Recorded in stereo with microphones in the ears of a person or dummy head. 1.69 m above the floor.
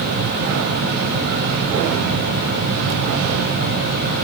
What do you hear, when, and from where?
Only background noise.